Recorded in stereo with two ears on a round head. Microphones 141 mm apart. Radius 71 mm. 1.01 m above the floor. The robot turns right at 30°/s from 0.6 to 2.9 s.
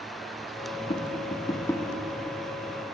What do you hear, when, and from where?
0.9 s tapping: 40° left (ahead or behind), 1.2 m; by 1.9 s 15° left (ahead or behind), 1.2 m